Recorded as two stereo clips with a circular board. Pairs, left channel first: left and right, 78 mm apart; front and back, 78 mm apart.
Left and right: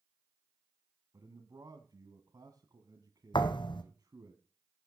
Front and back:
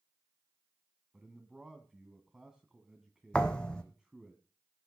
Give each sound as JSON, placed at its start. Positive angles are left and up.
{"t": 1.1, "sound": "a man speaking", "azimuth_deg": -100, "distance_m": 1.7}
{"t": 3.3, "sound": "a thud", "azimuth_deg": 80, "distance_m": 1.5}